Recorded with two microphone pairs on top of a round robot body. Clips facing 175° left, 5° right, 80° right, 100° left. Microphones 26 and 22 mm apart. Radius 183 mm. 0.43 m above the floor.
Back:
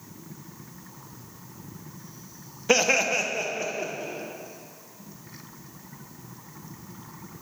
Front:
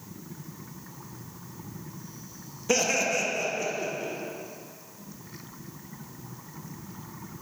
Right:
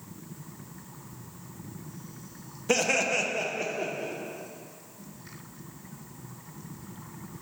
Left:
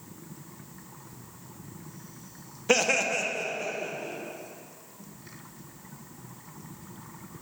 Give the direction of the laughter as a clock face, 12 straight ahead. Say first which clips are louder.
Back 4 dB, left 1 dB; 7 o'clock.